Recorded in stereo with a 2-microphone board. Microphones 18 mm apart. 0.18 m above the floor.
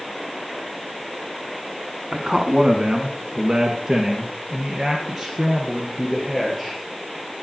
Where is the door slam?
No door slam in this recording.